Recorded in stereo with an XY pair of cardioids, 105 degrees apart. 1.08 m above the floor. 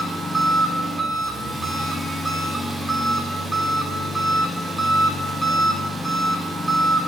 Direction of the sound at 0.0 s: 15° right.